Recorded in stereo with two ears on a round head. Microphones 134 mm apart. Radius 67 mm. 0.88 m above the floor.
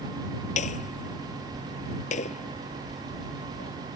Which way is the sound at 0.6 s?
50° left (ahead or behind).